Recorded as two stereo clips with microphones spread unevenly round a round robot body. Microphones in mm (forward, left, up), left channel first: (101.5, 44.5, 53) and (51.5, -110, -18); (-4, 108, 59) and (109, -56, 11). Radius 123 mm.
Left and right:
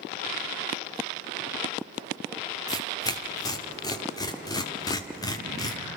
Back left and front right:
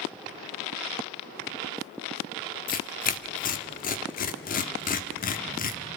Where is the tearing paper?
165° left, 1.3 m.